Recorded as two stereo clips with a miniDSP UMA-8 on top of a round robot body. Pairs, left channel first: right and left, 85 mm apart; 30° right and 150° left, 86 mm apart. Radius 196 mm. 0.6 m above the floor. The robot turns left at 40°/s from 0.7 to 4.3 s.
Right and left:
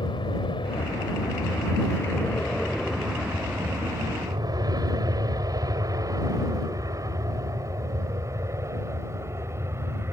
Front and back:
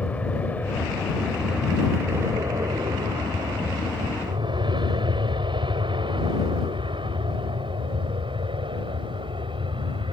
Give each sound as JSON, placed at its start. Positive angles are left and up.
{"t": 0.0, "sound": "an aircraft", "azimuth_deg": -105}